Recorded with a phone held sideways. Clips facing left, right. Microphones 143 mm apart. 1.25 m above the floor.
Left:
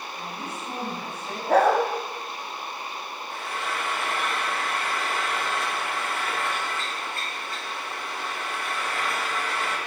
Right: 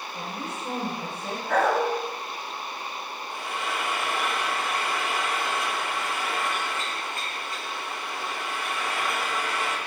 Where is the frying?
15° right (ahead or behind), 3.5 m.